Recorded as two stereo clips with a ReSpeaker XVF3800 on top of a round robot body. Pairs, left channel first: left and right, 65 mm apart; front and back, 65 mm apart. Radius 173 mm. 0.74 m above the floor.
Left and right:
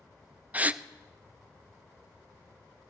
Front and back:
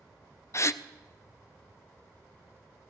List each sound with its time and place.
0.5 s a gasp: 30° right, 0.5 m